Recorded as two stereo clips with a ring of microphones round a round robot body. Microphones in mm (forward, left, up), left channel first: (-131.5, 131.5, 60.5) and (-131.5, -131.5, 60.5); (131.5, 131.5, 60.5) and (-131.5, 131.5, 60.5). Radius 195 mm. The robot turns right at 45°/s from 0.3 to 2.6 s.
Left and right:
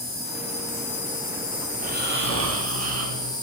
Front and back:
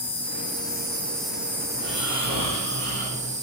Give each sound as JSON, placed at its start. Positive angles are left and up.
{"t": 0.0, "sound": "an insect", "azimuth_deg": 45, "distance_m": 1.6}
{"t": 1.8, "sound": "snoring", "azimuth_deg": -155, "distance_m": 1.7}